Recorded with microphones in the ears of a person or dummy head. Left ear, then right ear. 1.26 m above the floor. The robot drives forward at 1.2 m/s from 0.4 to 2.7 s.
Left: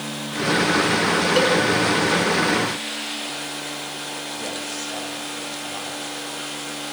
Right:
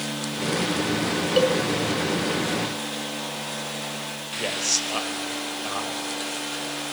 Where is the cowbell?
5° left (ahead or behind), 2.5 m.